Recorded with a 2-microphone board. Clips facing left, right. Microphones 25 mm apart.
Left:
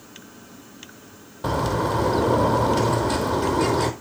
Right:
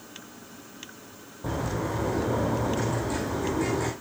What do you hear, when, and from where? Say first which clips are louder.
1.4 s a bird: left 7 dB; 60° left (ahead or behind), 1.7 m